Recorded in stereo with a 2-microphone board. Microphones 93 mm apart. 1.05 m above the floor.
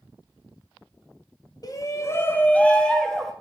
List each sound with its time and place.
1.6 s a shout: 45° left (ahead or behind), 1.0 m; by 3.3 s 5° left (ahead or behind), 1.5 m